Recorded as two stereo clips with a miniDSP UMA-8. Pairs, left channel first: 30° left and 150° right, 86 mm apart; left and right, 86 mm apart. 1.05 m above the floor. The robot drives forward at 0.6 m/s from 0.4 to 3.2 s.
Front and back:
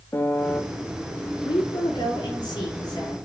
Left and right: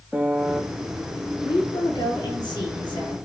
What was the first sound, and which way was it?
A piano, 15° right.